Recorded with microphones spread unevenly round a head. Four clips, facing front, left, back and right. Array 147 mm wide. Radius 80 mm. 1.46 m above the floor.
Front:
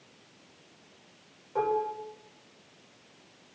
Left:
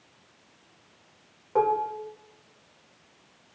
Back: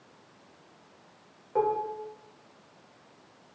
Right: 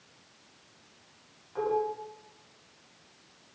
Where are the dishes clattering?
100° left, 4 m.